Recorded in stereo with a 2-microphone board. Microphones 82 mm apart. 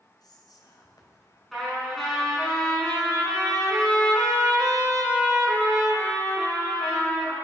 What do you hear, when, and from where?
0.2 s whispering: 60° left (ahead or behind), 3 m
1.5 s a trumpet: 5° left (ahead or behind), 5 m